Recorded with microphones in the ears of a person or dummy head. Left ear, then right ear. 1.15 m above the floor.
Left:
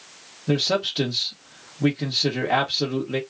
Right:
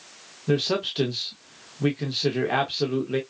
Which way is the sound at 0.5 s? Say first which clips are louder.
Left 2 dB; 5° right (ahead or behind).